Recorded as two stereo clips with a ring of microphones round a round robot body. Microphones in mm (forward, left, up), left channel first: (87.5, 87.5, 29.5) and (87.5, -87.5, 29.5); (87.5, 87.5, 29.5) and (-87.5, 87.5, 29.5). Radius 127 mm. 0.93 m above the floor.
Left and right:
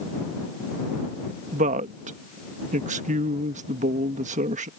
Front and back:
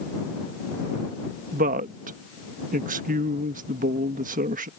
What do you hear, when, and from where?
1.5 s a woman speaking: 140° right